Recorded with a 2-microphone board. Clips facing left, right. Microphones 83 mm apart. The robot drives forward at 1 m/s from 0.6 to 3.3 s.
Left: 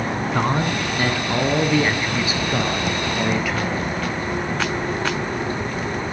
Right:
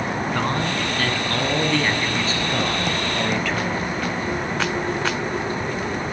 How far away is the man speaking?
About 1.9 m.